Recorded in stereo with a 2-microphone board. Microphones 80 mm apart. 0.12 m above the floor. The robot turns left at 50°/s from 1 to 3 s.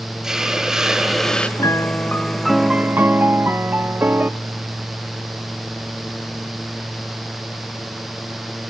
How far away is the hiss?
About 1.2 m.